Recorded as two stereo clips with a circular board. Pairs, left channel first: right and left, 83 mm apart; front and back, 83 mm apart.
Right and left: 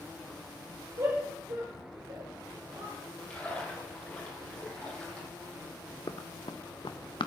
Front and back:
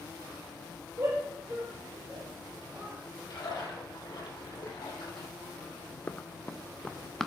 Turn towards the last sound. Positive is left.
turn(degrees=-85)